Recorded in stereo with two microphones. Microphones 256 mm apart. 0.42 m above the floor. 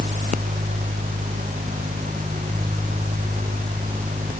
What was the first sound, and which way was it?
Only background noise.